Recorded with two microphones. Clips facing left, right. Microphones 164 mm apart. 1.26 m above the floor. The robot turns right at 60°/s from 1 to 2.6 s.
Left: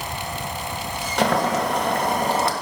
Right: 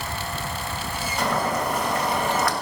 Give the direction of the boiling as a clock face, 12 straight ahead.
9 o'clock.